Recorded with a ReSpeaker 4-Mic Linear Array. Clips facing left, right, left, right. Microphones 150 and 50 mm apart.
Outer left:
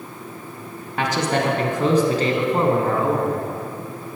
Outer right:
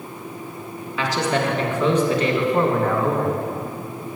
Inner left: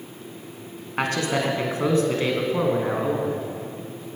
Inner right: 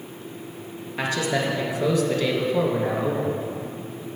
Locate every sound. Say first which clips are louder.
1.0 s a man speaking: outer left 1 dB, inner left 1 dB; 50° left (ahead or behind), 1.9 m; by 3.4 s 10° left (ahead or behind), 2.5 m